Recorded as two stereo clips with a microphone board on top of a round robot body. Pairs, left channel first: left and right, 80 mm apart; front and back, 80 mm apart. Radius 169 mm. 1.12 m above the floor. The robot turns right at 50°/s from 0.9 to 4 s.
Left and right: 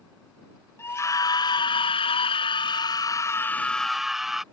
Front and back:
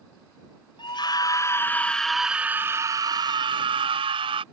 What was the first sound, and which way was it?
A scream, 30° left.